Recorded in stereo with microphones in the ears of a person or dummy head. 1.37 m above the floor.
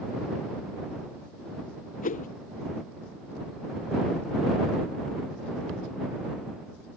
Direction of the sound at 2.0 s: 40° left (ahead or behind).